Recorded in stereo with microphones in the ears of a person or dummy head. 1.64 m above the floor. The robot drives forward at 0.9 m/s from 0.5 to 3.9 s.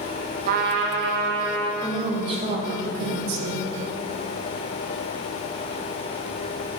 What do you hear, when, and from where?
0.5 s a trumpet: 55° right (ahead or behind), 0.7 m; by 1.7 s 35° right (ahead or behind), 1.1 m
1.8 s a woman speaking: 30° right (ahead or behind), 1.6 m; by 3.6 s 50° right (ahead or behind), 1.0 m